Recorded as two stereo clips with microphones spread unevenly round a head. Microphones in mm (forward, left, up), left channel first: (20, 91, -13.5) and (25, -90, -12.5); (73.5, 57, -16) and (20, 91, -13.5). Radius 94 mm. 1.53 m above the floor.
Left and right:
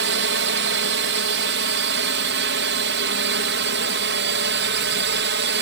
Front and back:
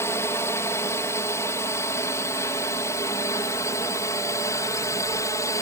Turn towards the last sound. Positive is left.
turn(degrees=-80)